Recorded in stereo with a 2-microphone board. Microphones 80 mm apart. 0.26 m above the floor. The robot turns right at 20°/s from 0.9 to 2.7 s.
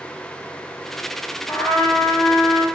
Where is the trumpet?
30° left (ahead or behind), 1.9 m; by 2.6 s 40° left (ahead or behind), 1.9 m.